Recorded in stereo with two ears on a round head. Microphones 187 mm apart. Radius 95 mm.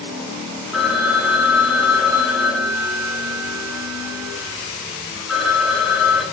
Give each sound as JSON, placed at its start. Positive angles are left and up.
{"t": 0.7, "sound": "a phone ringing", "side_deg": 0, "distance_m": 2.5}